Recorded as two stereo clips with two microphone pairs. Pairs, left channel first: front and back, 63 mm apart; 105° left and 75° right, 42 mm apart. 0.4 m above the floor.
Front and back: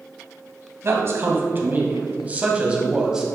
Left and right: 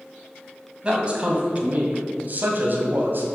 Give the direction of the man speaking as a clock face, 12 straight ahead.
5 o'clock.